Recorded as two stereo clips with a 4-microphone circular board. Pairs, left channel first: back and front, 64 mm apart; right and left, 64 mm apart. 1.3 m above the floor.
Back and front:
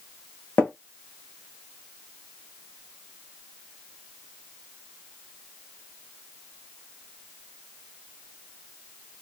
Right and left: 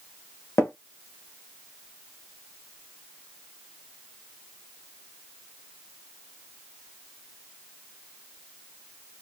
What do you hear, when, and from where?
0.6 s tapping: 130° right, 1.1 m